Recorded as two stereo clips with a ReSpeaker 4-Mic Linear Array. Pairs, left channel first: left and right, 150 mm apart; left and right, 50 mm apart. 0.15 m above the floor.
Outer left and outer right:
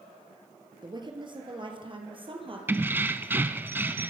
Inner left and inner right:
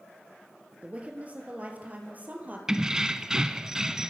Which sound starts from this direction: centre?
Keys jangling, at 2.7 s.